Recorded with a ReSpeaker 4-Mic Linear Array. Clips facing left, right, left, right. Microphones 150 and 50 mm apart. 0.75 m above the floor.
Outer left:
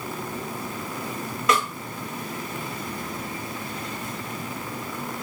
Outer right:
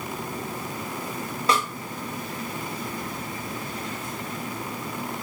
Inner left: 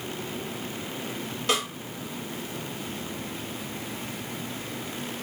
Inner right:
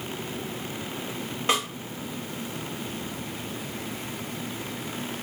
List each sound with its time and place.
1.5 s a snare drum: 30° right (ahead or behind), 1.1 m